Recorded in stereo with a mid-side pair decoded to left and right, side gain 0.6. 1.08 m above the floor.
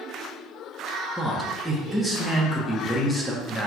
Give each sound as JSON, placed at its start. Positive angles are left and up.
{"t": 1.2, "sound": "a man speaking", "azimuth_deg": 5, "distance_m": 0.9}